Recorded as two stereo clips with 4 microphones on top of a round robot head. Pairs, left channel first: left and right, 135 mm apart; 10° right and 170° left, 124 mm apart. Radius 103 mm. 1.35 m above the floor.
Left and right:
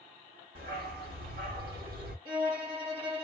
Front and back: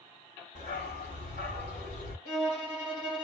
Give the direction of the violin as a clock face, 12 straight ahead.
2 o'clock.